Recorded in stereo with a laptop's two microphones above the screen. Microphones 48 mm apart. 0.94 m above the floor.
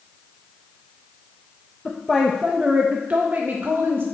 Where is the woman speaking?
15° left (ahead or behind), 0.7 m; by 4.0 s 50° right (ahead or behind), 1.2 m.